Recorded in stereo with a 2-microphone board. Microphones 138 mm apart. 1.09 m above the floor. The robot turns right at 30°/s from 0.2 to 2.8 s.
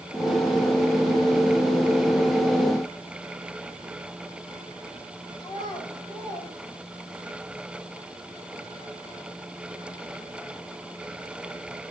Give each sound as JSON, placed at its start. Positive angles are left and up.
{"t": 5.4, "sound": "a child speaking", "side_deg": 35, "distance_m": 6.0}